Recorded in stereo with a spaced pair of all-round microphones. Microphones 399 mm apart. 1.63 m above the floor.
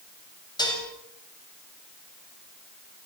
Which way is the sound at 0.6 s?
10° left (ahead or behind).